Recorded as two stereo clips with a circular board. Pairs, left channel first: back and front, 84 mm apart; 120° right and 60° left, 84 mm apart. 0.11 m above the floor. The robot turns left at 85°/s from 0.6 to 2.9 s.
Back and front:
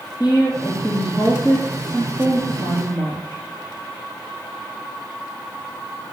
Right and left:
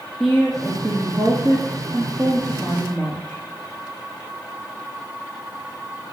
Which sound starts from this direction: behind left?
A woman speaking, at 0.2 s.